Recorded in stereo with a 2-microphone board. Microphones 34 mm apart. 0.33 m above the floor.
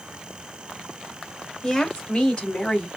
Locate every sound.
1.6 s a woman speaking: 20° left (ahead or behind), 1.8 m; by 2.9 s 35° left (ahead or behind), 2 m